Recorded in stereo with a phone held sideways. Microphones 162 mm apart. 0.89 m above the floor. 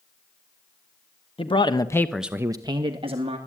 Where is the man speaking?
35° left (ahead or behind), 1.4 m; by 3.4 s 35° right (ahead or behind), 2 m.